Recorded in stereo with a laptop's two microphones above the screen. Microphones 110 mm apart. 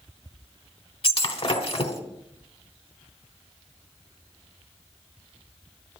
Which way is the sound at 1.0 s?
55° left (ahead or behind).